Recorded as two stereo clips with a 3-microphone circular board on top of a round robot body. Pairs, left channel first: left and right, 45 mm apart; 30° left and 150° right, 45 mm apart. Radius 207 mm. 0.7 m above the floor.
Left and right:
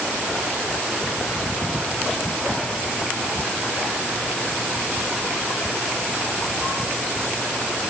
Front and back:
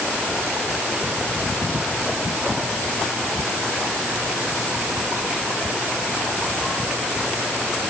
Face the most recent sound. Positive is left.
No sound to turn to.